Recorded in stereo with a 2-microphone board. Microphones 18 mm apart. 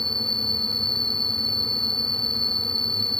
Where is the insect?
20° left (ahead or behind).